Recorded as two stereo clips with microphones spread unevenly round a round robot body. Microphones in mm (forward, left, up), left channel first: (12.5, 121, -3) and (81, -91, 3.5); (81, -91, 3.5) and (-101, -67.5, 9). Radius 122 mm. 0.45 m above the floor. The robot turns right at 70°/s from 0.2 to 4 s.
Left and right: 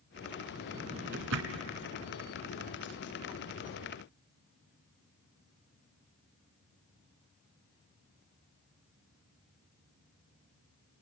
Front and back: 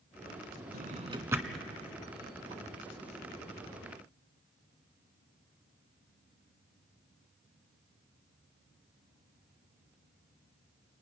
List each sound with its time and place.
0.7 s a drawer: 150° right, 1.5 m; by 1.7 s 90° right, 1.5 m